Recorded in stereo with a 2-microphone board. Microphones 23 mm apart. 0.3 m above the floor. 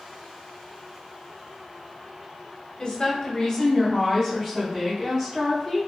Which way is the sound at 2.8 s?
40° left (ahead or behind).